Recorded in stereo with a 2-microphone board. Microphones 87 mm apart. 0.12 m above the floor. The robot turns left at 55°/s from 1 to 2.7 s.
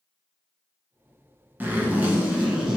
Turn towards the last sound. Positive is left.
turn(degrees=-10)  # may be behind; listen again after turning